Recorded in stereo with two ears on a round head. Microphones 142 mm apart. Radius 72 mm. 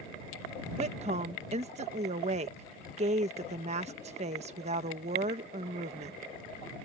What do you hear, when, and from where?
0.8 s a woman speaking: 45° right (ahead or behind)